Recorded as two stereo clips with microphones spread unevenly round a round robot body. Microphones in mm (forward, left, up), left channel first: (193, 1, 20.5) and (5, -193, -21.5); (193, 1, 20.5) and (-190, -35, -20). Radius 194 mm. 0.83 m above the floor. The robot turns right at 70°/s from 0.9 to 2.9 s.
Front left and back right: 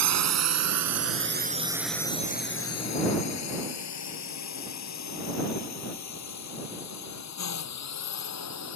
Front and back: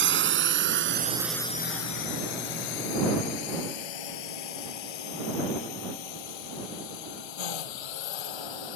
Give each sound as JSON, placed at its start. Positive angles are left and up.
{"t": 0.0, "sound": "a drone", "azimuth_deg": -115}